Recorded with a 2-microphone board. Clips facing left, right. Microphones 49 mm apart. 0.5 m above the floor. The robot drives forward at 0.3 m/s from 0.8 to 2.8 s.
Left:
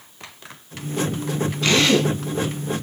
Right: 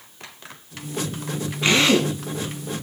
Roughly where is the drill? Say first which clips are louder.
Even; right.